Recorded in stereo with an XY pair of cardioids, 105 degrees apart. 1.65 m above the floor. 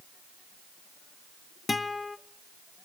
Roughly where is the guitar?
Ahead left.